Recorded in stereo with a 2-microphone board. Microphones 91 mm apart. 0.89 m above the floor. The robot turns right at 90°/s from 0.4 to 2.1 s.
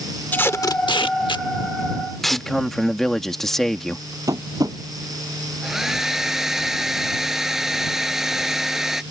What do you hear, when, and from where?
0.3 s tape being pulled: 25° left (ahead or behind); by 2.5 s centre (ahead or behind)
2.3 s a man speaking: 5° left (ahead or behind)
4.3 s tapping: 40° right (ahead or behind)
5.6 s a hair dryer: 5° right (ahead or behind)